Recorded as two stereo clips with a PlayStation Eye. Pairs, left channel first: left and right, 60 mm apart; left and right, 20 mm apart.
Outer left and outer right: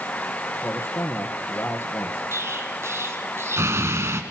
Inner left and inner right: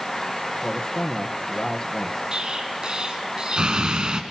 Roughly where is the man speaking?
Left.